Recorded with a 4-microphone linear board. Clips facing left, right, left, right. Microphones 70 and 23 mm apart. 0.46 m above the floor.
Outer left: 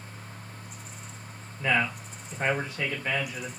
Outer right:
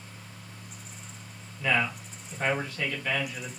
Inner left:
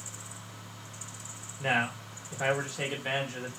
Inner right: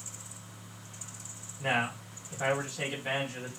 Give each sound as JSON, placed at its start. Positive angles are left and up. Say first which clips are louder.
{"t": 1.6, "sound": "a man speaking", "louder": "outer left 1 dB, inner left 1 dB", "side_deg": 20, "distance_m": 1.1}